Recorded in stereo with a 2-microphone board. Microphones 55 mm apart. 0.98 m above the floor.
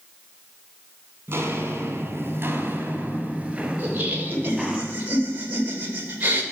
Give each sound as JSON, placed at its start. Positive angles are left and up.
{"t": 1.3, "sound": "footsteps", "side_deg": -45, "distance_m": 1.5}
{"t": 3.8, "sound": "laughter", "side_deg": -30, "distance_m": 1.8}